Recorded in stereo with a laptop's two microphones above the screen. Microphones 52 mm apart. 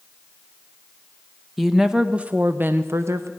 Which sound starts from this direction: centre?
A woman speaking, at 1.6 s.